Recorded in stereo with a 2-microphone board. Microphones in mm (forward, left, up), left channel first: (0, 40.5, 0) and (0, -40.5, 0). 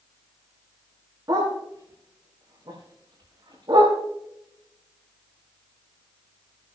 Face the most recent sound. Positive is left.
turn(degrees=-65)  # may be behind; listen again after turning